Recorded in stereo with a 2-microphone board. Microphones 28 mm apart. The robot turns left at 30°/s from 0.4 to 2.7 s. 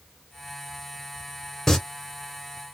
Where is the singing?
10° left (ahead or behind), 1.5 m.